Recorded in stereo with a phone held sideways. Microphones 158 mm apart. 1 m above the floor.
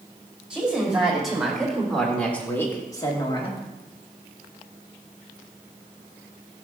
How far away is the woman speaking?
About 3.5 m.